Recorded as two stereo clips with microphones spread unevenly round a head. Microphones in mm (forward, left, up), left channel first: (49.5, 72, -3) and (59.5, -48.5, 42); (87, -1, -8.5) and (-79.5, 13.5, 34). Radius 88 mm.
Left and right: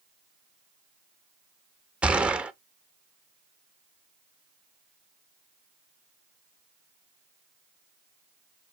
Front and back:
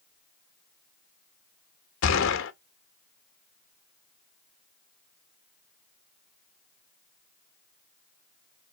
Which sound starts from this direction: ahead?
A gunshot, at 2.0 s.